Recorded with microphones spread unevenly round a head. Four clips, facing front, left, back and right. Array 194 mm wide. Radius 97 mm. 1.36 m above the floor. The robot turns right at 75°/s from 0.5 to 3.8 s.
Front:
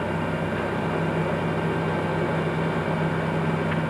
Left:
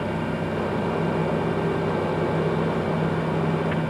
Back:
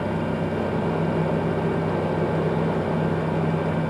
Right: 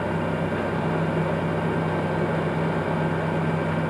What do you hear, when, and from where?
Only background noise.